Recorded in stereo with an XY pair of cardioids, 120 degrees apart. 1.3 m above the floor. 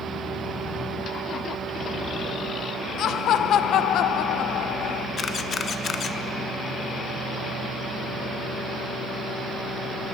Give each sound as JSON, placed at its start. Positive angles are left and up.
{"t": 3.0, "sound": "laughter", "azimuth_deg": 60, "distance_m": 0.7}
{"t": 5.2, "sound": "a camera shutter", "azimuth_deg": 45, "distance_m": 0.8}